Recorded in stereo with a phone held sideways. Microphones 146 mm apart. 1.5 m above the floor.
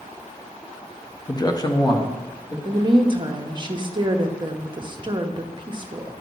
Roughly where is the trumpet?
I don't hear a trumpet.